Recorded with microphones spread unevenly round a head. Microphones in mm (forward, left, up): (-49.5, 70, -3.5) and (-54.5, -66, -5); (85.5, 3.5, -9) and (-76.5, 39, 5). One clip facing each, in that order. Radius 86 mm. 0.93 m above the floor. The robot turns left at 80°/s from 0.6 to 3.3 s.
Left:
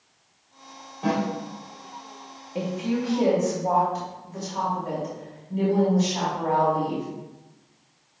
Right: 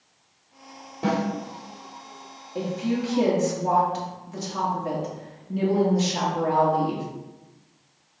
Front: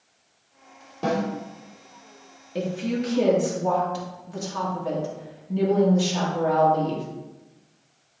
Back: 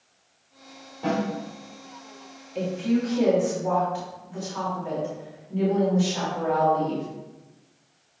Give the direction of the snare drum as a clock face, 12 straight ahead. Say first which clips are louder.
Even, front 1 dB; 1 o'clock.